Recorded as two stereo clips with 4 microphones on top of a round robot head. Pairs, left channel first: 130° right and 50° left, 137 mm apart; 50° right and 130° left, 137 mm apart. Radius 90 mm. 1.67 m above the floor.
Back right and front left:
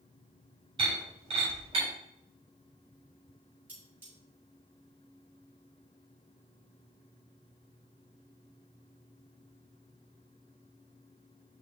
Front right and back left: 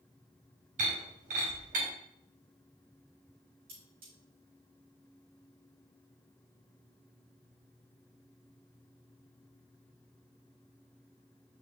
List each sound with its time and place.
0.8 s breaking glass: 100° left, 3.5 m
3.7 s cutlery clinking: 125° left, 4.5 m